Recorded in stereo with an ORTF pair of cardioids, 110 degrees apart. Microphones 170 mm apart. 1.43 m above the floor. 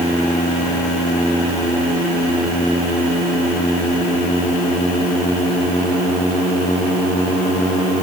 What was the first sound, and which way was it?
Only background noise.